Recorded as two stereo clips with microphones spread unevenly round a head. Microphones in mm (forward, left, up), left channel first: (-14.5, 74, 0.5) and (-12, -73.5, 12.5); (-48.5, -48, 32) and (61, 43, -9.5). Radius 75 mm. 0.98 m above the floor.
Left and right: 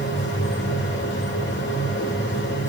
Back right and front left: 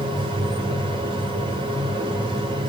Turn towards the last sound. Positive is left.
turn(degrees=100)